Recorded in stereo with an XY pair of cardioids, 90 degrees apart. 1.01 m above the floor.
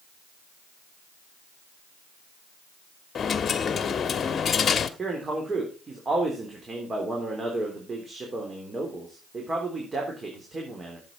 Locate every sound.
3.1 s a dropped coin: 50° left, 1.2 m
5.0 s a man speaking: 35° right, 3.5 m